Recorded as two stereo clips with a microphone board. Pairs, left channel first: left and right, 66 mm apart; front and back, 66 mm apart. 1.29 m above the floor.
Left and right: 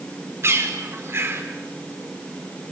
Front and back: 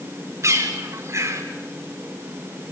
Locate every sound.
0.4 s a bird: 135° right, 4 m